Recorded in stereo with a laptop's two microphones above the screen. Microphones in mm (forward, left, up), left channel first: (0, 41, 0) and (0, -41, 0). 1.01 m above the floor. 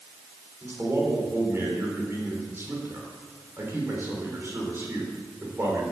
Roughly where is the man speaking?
Right.